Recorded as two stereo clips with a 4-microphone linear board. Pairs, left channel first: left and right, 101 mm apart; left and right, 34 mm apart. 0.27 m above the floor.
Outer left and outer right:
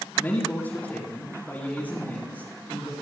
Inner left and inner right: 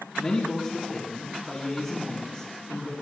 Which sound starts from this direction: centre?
A man speaking, at 0.2 s.